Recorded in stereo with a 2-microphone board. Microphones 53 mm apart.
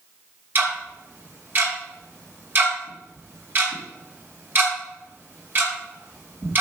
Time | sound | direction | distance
0.6 | ticking | 40° right (ahead or behind) | 3 m